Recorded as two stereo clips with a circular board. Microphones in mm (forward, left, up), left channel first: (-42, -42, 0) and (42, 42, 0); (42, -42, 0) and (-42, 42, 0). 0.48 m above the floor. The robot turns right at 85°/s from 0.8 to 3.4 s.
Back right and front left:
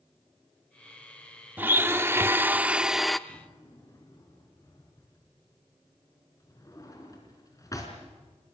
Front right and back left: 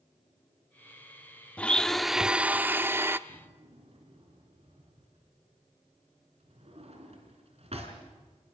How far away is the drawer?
About 4 m.